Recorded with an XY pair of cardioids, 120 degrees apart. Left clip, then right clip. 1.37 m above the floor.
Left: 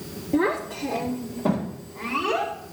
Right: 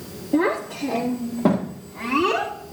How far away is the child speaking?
About 1.4 m.